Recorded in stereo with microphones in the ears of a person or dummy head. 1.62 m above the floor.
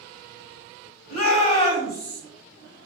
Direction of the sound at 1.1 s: 50° left (ahead or behind).